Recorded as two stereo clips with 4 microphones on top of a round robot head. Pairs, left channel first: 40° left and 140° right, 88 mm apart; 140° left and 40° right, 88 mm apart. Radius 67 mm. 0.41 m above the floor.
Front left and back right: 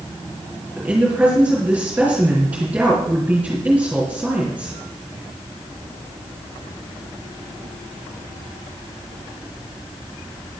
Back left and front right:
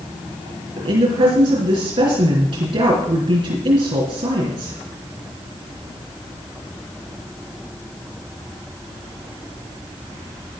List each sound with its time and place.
0.8 s a woman speaking: 60° right, 5 m